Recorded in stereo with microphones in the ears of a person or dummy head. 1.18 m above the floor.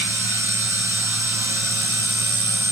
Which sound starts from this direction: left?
A machine running, at 0.0 s.